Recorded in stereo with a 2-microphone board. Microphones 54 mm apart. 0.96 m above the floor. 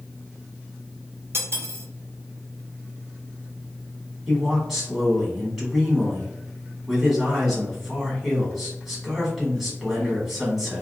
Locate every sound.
1.3 s cutlery clinking: 55° right (ahead or behind), 0.7 m
4.3 s a man speaking: 10° right (ahead or behind), 1.4 m